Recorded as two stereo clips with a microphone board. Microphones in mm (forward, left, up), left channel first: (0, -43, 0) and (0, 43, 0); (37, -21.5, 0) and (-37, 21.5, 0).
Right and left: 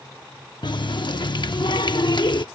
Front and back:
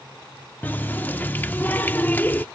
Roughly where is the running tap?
Right.